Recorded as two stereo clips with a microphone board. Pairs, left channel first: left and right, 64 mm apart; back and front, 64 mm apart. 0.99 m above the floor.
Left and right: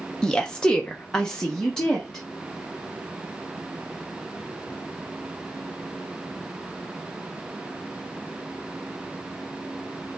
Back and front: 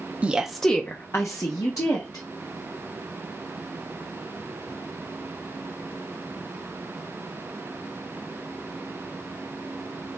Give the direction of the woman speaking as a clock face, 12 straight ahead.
11 o'clock.